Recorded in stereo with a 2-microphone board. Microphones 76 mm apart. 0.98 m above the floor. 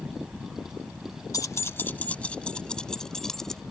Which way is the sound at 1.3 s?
55° left (ahead or behind).